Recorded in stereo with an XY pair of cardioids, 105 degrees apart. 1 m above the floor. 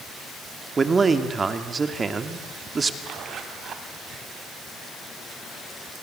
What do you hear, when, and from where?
0.8 s a man speaking: 30° right, 2.5 m
3.0 s a zipper: 60° right, 3.5 m